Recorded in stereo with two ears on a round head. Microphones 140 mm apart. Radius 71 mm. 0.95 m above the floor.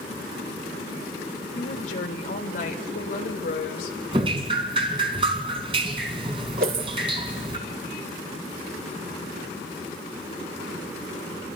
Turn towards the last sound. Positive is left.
turn(degrees=-60)  # may be behind; listen again after turning